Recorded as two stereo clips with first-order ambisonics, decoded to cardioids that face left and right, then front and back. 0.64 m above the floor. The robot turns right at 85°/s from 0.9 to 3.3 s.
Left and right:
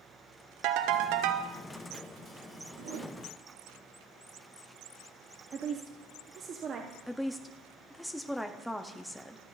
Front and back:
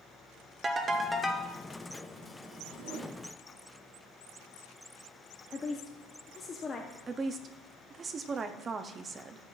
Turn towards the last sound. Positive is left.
turn(degrees=175)